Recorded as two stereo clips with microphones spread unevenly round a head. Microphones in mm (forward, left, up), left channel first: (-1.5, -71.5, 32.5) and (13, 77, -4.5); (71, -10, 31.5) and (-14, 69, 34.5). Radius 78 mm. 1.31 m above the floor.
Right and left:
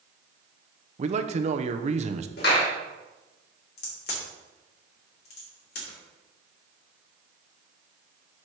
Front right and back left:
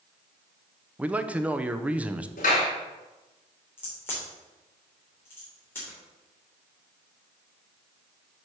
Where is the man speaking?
60° left, 0.8 m.